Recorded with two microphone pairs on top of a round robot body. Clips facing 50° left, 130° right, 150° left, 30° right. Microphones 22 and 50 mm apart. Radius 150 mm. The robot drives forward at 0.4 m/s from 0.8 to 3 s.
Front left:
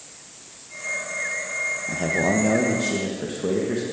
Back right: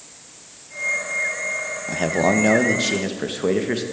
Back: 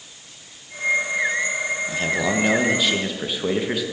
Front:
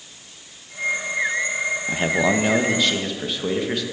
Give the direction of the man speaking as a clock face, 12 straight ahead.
3 o'clock.